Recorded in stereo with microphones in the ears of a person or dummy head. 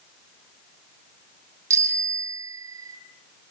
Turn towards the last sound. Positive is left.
turn(degrees=-20)  # may be behind; listen again after turning